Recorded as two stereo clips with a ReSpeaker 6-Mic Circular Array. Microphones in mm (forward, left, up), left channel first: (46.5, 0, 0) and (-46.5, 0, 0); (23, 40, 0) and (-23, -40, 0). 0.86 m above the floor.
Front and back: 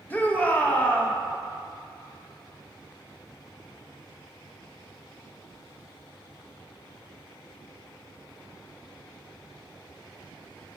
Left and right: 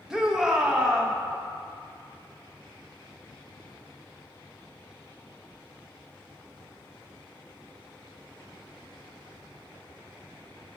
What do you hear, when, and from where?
0.1 s a shout: 45° right, 0.8 m